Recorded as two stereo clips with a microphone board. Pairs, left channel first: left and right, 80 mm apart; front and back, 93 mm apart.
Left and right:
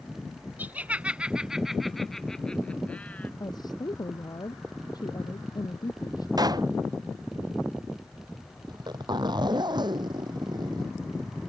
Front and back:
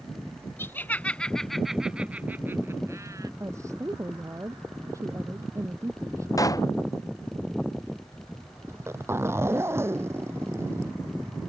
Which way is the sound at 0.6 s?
40° right.